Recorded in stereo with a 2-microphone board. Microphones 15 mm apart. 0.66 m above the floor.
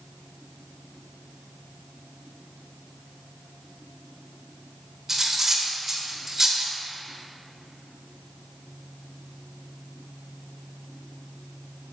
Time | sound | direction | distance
5.1 | cutlery clinking | 30° right (ahead or behind) | 1.1 m